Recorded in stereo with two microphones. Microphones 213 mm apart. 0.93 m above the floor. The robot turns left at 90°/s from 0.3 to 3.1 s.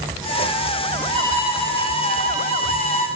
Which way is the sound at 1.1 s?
140° right.